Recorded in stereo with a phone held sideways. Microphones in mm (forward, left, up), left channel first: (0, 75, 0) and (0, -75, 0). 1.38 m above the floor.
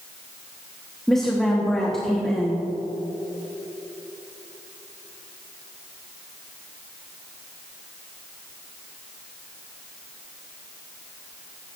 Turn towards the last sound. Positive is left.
turn(degrees=5)  # may be behind; listen again after turning